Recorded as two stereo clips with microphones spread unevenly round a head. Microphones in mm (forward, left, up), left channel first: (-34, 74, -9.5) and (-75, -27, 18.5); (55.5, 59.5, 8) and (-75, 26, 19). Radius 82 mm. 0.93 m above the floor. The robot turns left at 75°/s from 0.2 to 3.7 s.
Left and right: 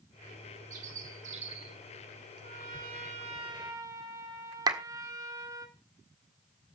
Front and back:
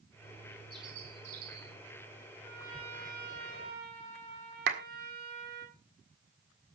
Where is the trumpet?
75° right, 4 m; by 5.7 s 170° right, 4 m.